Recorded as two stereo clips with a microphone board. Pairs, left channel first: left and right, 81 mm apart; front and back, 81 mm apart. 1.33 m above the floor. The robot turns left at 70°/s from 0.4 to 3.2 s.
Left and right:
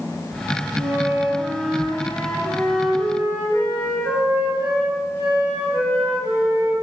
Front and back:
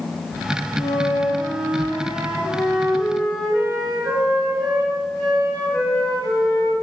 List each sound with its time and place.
0.8 s a flute: 120° right, 1.4 m; by 6.7 s 65° left, 1.4 m